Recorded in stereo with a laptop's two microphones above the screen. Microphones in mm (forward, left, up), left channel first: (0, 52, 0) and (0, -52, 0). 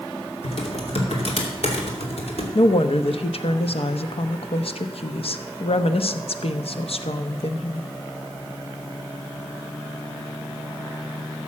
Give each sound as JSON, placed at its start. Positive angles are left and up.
{"t": 0.4, "sound": "typing on a keyboard", "side_deg": 80, "distance_m": 2.5}
{"t": 2.5, "sound": "a woman speaking", "side_deg": 70, "distance_m": 1.0}